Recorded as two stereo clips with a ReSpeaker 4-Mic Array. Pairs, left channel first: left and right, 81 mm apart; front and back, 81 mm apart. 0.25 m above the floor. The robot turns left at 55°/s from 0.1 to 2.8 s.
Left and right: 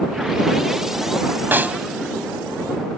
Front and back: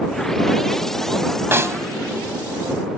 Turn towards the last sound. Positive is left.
turn(degrees=150)